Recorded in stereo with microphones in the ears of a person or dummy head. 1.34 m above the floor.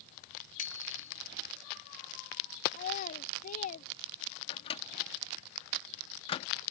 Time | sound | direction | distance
0.6 | a bicycle bell | 45° left (ahead or behind) | ?
2.7 | a child speaking | 50° left (ahead or behind) | ?
4.5 | a microwave | 35° left (ahead or behind) | ?